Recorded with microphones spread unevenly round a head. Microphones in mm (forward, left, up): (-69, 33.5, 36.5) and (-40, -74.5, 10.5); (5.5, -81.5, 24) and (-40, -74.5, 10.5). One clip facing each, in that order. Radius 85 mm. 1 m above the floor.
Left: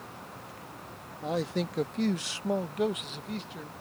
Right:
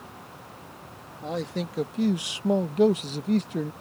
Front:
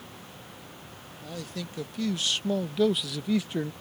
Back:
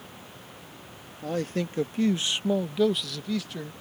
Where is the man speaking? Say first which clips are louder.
Even, back 9 dB; 165° right; by 3.7 s 75° right.